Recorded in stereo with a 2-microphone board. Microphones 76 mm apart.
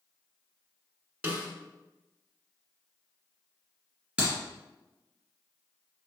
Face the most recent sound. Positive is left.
turn(degrees=-10)  # may be behind; listen again after turning